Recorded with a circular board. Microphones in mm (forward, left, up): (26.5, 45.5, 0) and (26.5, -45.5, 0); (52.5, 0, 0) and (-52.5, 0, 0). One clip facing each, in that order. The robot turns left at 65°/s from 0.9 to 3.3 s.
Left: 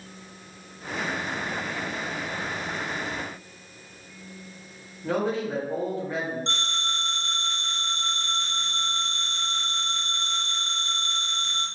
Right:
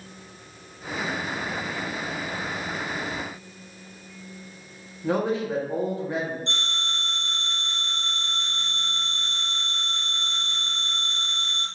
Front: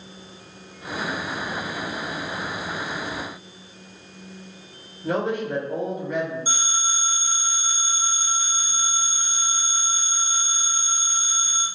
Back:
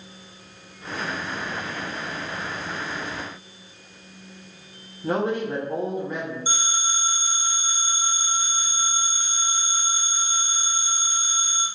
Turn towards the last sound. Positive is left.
turn(degrees=105)